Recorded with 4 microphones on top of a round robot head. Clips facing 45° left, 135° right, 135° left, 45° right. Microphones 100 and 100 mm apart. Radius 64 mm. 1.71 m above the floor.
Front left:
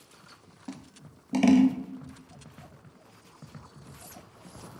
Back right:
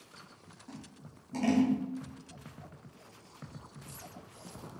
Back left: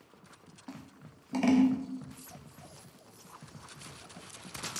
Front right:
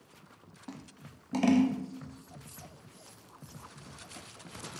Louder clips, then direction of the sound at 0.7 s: Front left 6 dB, front right 1 dB; 35° left.